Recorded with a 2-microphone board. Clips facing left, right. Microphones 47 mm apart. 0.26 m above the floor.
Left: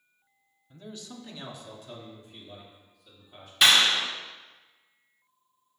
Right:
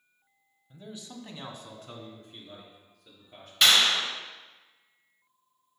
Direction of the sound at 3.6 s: 5° left (ahead or behind).